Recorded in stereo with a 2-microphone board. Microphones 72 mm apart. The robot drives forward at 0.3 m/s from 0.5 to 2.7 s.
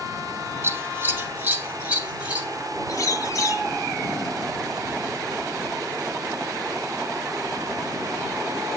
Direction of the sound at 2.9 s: 45° left (ahead or behind).